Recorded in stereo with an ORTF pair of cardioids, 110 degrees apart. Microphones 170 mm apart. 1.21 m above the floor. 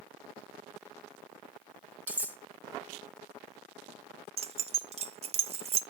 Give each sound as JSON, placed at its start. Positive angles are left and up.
{"t": 2.1, "sound": "cutlery clinking", "azimuth_deg": -10, "distance_m": 1.7}
{"t": 4.4, "sound": "keys jangling", "azimuth_deg": -40, "distance_m": 0.6}